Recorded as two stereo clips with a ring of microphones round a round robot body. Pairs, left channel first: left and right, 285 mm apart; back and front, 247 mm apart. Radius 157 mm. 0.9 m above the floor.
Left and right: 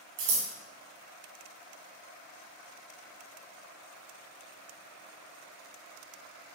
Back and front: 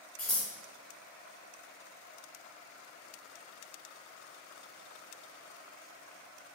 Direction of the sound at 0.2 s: 95° right.